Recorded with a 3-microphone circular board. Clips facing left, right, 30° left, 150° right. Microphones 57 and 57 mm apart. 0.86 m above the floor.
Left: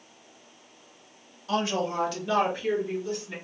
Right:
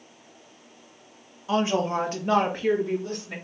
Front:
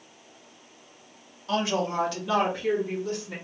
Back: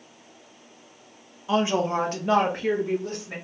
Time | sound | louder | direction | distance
1.5 | a woman speaking | right 3 dB, back 4 dB | 110° right | 0.8 m